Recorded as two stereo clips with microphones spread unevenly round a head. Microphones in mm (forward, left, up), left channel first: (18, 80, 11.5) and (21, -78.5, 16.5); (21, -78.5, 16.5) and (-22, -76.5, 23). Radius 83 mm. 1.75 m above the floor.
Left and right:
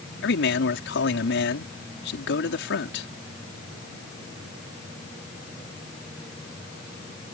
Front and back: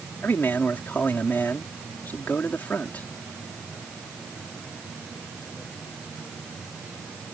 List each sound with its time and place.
0.2 s a man speaking: 75° left